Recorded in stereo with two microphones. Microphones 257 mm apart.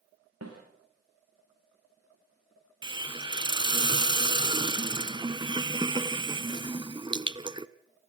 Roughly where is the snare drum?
Right.